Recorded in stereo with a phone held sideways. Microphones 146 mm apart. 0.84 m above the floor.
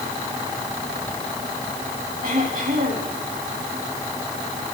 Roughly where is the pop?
No pop in this recording.